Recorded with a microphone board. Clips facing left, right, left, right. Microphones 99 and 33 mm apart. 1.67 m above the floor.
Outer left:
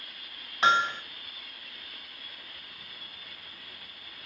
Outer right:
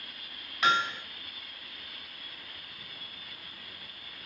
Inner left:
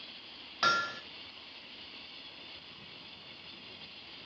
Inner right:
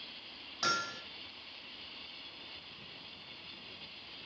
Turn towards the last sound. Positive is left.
turn(degrees=30)  # may be behind; listen again after turning